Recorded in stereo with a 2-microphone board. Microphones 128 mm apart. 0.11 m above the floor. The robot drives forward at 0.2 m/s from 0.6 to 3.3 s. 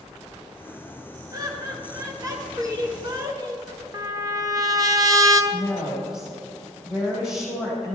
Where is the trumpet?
30° right (ahead or behind), 1.0 m.